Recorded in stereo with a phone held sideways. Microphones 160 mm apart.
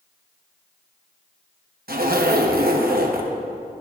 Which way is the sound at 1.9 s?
70° right (ahead or behind).